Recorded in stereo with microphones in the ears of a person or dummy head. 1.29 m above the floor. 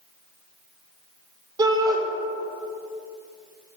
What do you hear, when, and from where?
1.6 s a shout: 25° right (ahead or behind), 0.9 m